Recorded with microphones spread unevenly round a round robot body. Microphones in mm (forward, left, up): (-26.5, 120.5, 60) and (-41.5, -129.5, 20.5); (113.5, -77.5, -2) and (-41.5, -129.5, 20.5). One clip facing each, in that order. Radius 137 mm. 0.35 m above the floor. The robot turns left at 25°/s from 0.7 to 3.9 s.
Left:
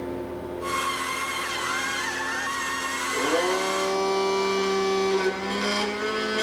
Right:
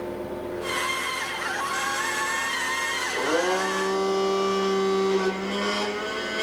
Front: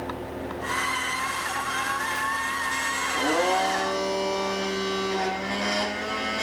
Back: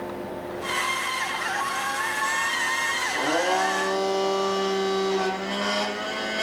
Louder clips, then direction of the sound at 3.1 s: Even, even; 125° left.